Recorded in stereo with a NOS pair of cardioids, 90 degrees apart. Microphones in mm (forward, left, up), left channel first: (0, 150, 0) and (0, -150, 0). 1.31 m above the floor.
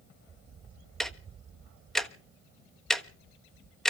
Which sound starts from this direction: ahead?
Ticking, at 1.0 s.